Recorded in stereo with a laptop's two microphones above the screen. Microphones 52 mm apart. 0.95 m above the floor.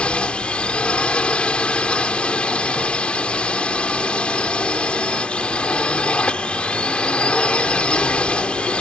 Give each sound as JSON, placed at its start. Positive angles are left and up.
{"t": 0.0, "sound": "a drone", "side_deg": 20}